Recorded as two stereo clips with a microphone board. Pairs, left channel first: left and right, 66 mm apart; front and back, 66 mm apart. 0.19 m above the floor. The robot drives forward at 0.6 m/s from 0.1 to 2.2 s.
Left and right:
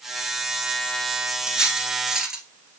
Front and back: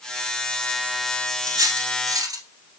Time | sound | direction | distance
1.5 | cutlery clinking | 165° right | 1.3 m